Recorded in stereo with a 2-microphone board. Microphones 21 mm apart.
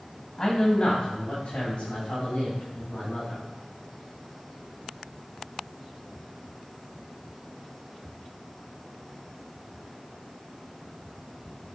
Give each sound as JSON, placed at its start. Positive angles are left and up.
{"t": 0.4, "sound": "a man speaking", "side_deg": 40, "distance_m": 1.4}